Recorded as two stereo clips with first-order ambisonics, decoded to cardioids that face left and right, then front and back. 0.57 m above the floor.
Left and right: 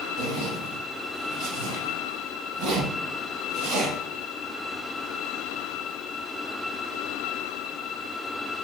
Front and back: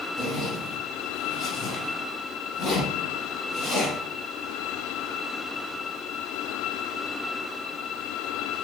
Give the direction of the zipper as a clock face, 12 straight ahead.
2 o'clock.